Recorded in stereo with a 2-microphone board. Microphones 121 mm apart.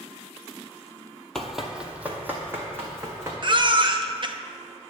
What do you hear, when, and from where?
1.4 s running footsteps: 5° left (ahead or behind), 0.9 m; by 3.3 s 20° right (ahead or behind), 2.5 m
3.4 s a baby crying: 45° right (ahead or behind), 0.5 m